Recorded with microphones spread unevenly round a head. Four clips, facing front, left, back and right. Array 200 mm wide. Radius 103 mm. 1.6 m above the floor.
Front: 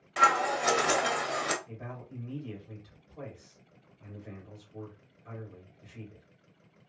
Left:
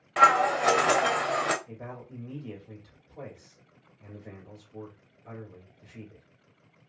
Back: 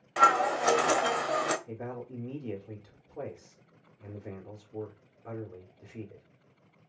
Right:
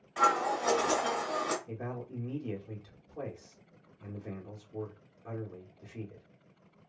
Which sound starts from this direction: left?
Scissors, at 0.2 s.